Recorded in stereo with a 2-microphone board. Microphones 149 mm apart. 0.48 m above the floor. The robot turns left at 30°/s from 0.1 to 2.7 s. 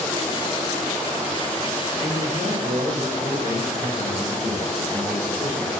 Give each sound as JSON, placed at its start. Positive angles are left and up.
{"t": 2.0, "sound": "a man speaking", "side_deg": -55, "distance_m": 9.0}